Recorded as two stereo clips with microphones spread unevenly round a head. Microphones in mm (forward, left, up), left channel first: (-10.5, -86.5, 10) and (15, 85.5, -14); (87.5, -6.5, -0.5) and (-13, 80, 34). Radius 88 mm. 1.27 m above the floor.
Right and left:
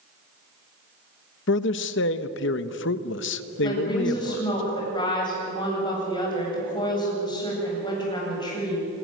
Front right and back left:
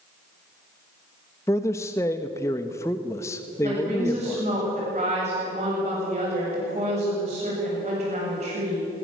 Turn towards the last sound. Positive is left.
turn(degrees=-165)